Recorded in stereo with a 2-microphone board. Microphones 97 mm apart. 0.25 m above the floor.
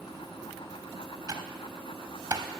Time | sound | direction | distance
1.3 | typing on a keyboard | 40° right (ahead or behind) | 0.6 m